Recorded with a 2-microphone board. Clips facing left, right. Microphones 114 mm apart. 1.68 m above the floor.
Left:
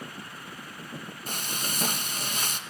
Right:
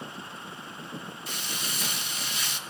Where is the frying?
50° left (ahead or behind), 1.4 m.